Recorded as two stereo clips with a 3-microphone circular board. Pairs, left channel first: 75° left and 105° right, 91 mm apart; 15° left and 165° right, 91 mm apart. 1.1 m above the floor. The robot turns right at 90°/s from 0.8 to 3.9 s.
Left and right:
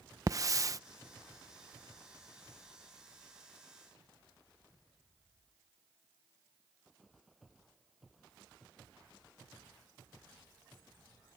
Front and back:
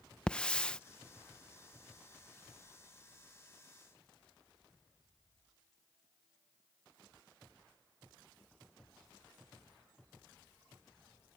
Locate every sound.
0.3 s a hiss: 65° right